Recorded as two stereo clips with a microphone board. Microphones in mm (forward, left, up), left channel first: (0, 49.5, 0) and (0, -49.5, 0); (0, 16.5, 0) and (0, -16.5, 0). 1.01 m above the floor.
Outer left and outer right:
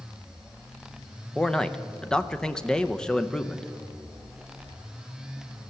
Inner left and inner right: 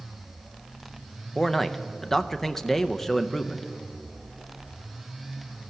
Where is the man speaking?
5° left (ahead or behind), 0.6 m.